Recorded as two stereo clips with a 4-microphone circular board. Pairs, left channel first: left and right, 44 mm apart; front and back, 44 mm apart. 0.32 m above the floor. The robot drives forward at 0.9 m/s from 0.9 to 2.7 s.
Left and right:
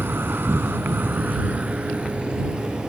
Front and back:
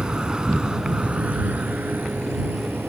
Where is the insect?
115° right; by 2.9 s 160° right.